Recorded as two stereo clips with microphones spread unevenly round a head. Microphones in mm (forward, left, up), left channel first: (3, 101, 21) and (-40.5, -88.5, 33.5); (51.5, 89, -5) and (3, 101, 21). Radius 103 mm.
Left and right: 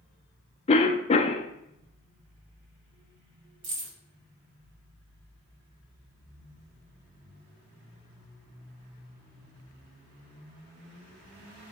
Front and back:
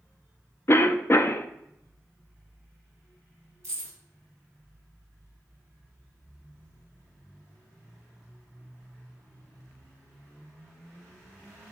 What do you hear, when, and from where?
0.7 s a cough: 15° left, 0.5 m
3.6 s keys jangling: 135° right, 1.9 m